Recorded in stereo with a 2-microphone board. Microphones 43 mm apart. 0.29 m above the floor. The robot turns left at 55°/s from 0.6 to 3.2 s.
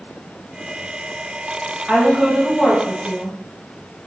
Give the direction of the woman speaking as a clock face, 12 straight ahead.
5 o'clock.